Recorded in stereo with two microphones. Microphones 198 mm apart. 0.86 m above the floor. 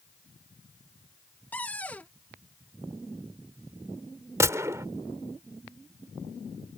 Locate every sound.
1.5 s a cupboard door: 5° left (ahead or behind)
4.4 s a gunshot: 15° right (ahead or behind)